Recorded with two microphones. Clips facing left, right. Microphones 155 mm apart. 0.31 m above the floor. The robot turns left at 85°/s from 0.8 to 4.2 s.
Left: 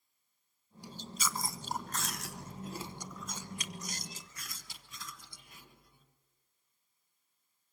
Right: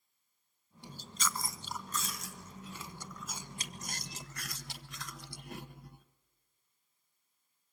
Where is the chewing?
155° right, 1.0 m; by 6.0 s 85° right, 1.0 m.